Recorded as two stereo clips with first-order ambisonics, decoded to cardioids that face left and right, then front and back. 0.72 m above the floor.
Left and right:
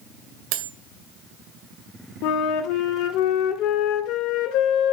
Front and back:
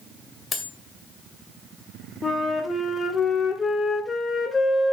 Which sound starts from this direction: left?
A flute, at 2.2 s.